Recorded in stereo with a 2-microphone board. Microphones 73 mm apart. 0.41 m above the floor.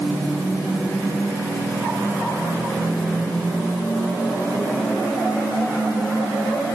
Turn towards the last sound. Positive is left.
No sound to turn to.